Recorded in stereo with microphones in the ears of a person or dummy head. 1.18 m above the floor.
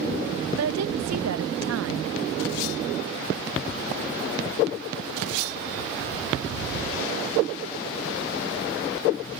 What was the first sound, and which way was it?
A woman speaking, 80° right.